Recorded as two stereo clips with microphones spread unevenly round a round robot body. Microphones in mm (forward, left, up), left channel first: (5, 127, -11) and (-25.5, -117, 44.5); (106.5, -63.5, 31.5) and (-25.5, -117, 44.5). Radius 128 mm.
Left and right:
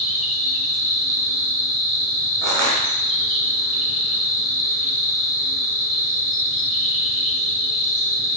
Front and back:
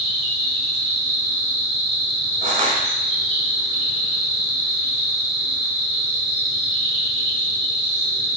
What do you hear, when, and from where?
0.0 s an insect: 120° left, 1.0 m
2.4 s crushing: 145° right, 0.8 m